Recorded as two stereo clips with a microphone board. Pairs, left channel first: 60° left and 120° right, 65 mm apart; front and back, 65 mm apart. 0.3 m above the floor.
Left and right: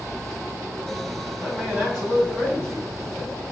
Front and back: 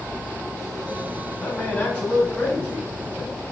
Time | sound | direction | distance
1.4 | a man speaking | 45° right | 1.8 m